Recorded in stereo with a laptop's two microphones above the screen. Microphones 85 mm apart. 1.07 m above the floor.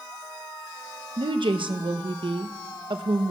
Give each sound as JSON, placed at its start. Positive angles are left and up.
{"t": 1.2, "sound": "a woman speaking", "side_deg": -75, "distance_m": 0.8}